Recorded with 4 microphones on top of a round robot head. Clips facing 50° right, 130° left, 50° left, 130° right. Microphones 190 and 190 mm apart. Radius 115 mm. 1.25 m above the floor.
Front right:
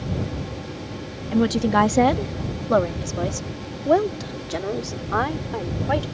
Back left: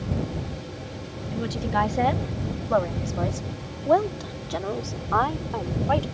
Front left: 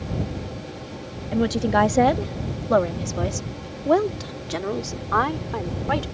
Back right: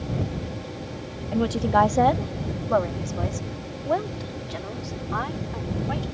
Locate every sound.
1.3 s a woman speaking: 30° right; by 6.0 s 30° left